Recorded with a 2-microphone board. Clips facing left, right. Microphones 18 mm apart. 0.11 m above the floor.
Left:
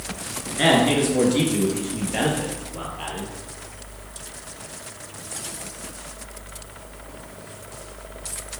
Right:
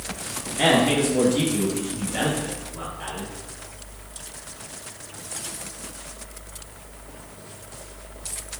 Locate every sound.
0.6 s a man speaking: 10° left (ahead or behind), 1.2 m; by 3.3 s 60° left (ahead or behind), 2.5 m